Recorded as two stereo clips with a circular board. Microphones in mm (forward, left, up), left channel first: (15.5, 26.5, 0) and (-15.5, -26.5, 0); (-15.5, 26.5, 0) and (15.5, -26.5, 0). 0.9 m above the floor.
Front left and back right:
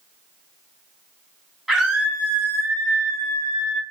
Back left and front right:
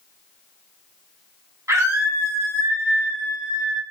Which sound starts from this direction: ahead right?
A scream, at 1.7 s.